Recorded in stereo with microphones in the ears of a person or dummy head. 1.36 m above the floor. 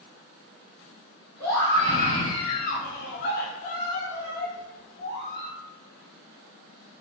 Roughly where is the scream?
Centre.